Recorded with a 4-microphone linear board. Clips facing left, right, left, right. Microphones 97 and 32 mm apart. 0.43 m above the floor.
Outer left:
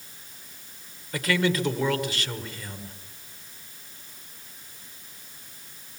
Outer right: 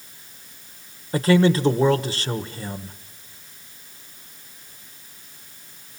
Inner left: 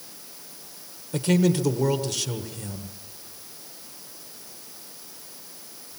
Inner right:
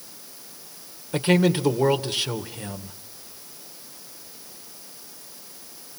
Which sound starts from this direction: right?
A man speaking, at 1.1 s.